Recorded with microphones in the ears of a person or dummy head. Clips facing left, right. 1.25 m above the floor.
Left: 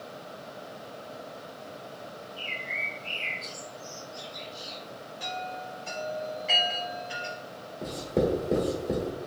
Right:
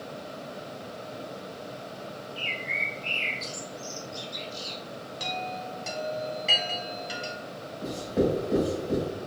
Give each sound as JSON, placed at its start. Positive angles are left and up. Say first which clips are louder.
{"t": 2.4, "sound": "a bird", "louder": "right 3 dB", "side_deg": -50, "distance_m": 0.8}
{"t": 5.2, "sound": "a chime", "louder": "right 2 dB", "side_deg": -80, "distance_m": 1.3}
{"t": 7.8, "sound": "writing", "louder": "right 1 dB", "side_deg": 30, "distance_m": 1.1}